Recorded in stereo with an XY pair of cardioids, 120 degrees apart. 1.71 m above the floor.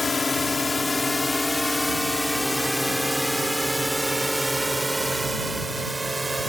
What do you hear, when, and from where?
0.0 s a drone: 25° left; by 6.5 s 15° right